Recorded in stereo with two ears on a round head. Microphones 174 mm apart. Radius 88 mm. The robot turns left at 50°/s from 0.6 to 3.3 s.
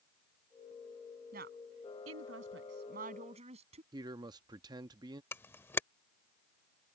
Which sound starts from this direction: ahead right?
A woman speaking, at 1.3 s.